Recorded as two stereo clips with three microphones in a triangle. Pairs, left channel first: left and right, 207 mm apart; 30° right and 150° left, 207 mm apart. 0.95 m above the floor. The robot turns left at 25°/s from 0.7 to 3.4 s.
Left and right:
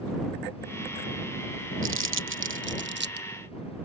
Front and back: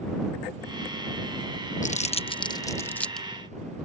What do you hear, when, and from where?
1.8 s crumpling: 85° right; by 3.3 s 120° right